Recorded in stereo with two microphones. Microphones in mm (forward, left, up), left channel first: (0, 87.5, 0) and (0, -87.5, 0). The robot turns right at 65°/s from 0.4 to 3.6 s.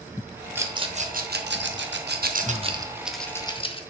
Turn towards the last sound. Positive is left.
turn(degrees=30)  # may be behind; listen again after turning